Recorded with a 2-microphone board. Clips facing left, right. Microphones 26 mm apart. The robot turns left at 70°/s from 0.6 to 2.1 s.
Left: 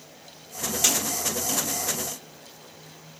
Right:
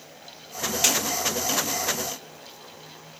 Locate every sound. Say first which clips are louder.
0.8 s a snare drum: right 1 dB; 30° right (ahead or behind), 1.5 m; by 1.0 s 25° right (ahead or behind), 1.5 m